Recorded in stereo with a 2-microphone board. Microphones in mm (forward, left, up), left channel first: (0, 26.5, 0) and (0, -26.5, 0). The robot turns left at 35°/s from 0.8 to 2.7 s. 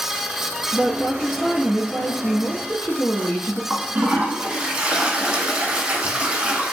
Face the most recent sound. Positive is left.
turn(degrees=-15)  # may be behind; listen again after turning